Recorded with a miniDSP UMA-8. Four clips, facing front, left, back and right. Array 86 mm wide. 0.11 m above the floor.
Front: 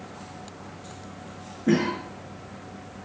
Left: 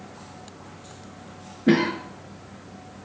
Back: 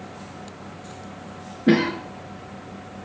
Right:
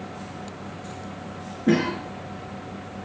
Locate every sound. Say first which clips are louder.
1.7 s a cough: left 1 dB, back 4 dB; 150° left, 1.2 m